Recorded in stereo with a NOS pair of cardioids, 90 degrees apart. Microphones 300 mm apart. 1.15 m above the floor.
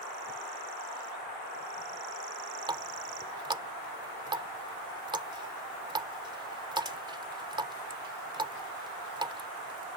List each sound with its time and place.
2.7 s a running tap: 15° right